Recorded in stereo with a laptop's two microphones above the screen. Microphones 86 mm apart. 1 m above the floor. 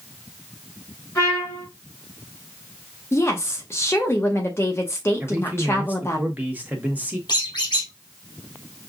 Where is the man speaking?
20° right (ahead or behind), 1.1 m.